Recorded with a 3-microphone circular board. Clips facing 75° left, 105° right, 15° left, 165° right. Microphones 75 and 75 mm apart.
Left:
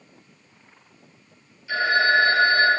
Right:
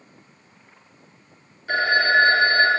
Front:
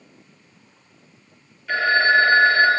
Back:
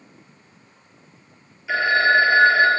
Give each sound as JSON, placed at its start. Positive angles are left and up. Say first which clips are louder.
{"t": 1.7, "sound": "a phone ringing", "louder": "right 1 dB, even", "azimuth_deg": -85, "distance_m": 1.6}